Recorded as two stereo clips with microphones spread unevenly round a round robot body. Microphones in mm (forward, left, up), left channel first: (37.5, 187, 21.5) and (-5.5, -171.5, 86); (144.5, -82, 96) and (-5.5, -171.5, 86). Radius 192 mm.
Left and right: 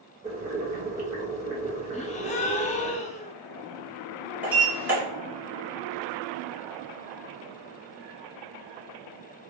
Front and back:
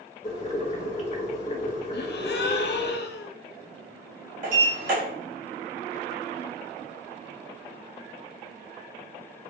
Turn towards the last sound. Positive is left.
turn(degrees=175)